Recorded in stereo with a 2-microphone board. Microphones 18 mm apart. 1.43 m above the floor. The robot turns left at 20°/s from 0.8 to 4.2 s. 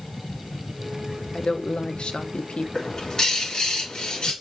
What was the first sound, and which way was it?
A woman speaking, 70° left (ahead or behind).